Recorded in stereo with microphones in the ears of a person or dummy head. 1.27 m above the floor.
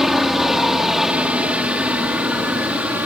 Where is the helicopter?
Centre (ahead or behind); by 3.0 s 5° right (ahead or behind).